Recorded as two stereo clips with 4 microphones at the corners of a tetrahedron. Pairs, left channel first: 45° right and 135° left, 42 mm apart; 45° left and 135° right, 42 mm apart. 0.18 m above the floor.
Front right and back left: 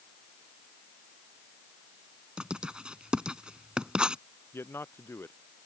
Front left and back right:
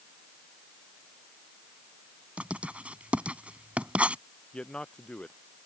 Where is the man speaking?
25° right.